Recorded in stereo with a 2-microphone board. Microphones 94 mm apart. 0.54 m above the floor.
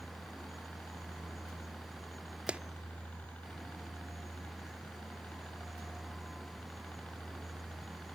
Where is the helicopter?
20° left (ahead or behind); by 8.1 s 10° left (ahead or behind).